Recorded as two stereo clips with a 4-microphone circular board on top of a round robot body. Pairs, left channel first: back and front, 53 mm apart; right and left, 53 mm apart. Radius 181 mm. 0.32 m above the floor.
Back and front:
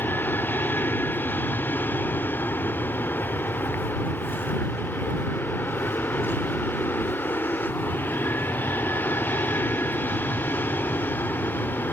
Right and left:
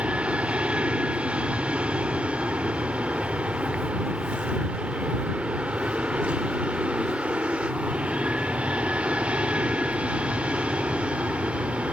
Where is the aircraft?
150° left.